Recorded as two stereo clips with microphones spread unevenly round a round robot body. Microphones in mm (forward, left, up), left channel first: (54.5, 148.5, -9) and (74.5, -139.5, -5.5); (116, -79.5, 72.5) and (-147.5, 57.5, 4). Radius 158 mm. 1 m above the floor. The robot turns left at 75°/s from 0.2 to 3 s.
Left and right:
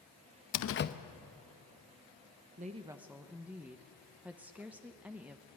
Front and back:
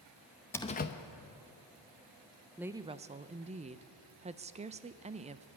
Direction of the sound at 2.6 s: 140° right.